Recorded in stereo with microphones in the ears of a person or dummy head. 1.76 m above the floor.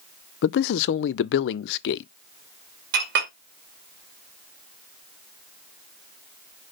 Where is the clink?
60° right (ahead or behind), 1.8 m.